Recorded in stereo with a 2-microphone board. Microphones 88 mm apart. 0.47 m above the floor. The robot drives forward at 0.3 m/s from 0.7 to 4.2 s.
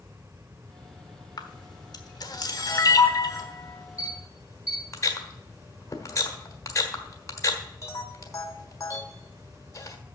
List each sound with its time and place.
1.4 s a camera shutter: 50° left (ahead or behind), 1.1 m; by 10.0 s 35° left (ahead or behind), 1.4 m